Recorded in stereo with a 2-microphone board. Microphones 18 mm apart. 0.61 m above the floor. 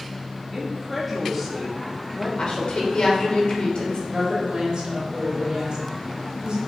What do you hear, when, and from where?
0.5 s a woman speaking: centre (ahead or behind), 1.2 m
2.4 s a woman speaking: 60° left (ahead or behind), 2.5 m
4.1 s a woman speaking: 55° right (ahead or behind), 2.5 m